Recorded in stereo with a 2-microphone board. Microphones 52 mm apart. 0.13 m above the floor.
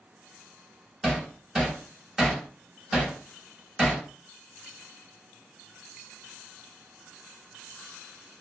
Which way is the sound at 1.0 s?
10° right (ahead or behind).